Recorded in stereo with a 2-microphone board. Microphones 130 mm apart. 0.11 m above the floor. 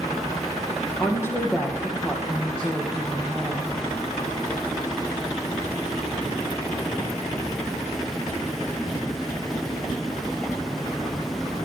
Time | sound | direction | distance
1.0 | a woman speaking | 20° left (ahead or behind) | 3.5 m